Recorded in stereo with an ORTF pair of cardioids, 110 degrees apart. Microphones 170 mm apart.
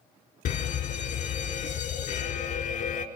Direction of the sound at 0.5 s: 60° left.